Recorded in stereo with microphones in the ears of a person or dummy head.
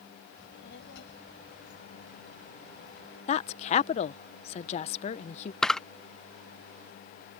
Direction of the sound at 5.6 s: 5° left (ahead or behind).